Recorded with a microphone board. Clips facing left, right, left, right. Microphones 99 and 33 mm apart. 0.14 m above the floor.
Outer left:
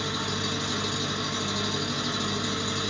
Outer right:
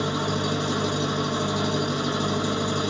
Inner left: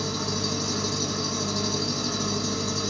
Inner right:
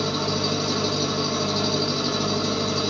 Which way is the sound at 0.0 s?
40° right (ahead or behind).